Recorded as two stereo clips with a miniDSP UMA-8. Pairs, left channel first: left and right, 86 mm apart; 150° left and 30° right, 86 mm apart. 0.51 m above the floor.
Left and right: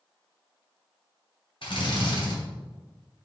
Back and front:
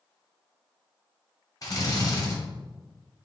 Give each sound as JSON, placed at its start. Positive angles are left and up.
{"t": 1.6, "sound": "a drill", "azimuth_deg": 105, "distance_m": 2.0}